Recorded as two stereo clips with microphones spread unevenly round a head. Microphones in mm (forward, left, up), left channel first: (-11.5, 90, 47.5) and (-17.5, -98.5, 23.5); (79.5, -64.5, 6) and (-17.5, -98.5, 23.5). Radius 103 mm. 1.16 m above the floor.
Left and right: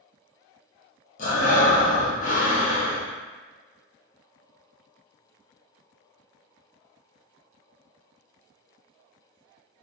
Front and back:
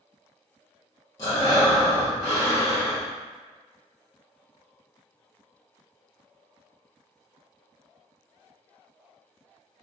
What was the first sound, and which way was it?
Breathing, 85° left.